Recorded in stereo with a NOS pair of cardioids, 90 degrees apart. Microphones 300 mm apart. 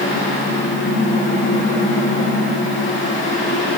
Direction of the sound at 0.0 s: 40° left.